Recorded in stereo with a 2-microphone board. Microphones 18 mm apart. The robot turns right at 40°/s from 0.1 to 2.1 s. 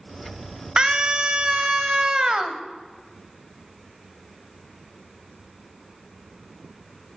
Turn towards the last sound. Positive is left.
turn(degrees=-65)